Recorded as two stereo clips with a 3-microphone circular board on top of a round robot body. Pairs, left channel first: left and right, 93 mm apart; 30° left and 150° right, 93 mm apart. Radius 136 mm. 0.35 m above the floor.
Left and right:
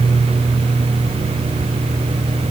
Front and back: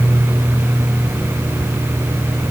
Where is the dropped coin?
No dropped coin in this recording.